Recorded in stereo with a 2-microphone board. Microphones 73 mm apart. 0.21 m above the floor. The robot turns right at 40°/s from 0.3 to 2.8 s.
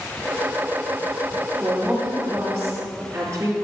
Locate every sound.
1.6 s a woman speaking: 170° left, 3.5 m; by 3.5 s 140° right, 3.5 m